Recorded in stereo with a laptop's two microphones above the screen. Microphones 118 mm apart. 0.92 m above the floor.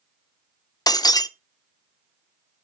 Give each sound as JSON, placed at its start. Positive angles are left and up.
{"t": 0.9, "sound": "breaking glass", "side_deg": 35, "distance_m": 0.5}